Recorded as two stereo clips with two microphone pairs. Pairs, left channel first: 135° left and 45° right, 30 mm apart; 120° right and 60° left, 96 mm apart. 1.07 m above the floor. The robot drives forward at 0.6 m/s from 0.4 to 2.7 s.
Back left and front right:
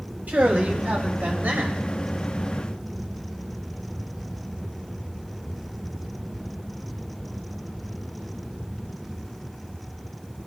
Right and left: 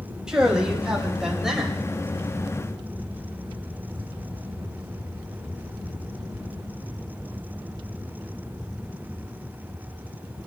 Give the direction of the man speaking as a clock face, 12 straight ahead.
1 o'clock.